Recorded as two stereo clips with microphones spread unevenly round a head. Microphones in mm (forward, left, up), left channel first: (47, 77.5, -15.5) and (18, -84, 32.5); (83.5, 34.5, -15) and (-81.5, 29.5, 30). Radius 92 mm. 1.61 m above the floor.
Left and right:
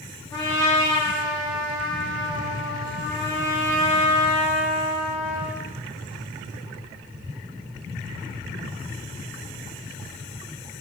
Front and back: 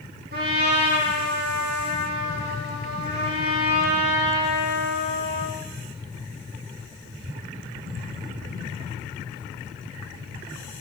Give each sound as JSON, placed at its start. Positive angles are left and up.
{"t": 0.3, "sound": "a trumpet", "azimuth_deg": 155, "distance_m": 4.0}